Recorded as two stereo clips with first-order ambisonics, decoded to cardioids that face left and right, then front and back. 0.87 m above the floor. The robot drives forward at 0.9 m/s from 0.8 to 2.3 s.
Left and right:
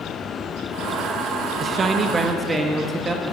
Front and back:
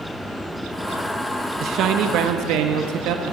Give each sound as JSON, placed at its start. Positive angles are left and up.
{"t": 1.6, "sound": "a man speaking", "azimuth_deg": -140, "distance_m": 0.7}